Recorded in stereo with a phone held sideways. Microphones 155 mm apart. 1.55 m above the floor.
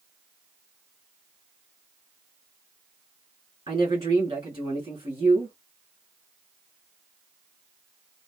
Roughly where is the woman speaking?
Right.